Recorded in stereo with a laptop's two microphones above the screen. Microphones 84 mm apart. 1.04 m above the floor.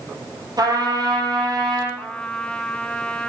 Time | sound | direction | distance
0.6 | a trumpet | 50° right (ahead or behind) | 6 m
2.0 | a trumpet | 15° left (ahead or behind) | 1.0 m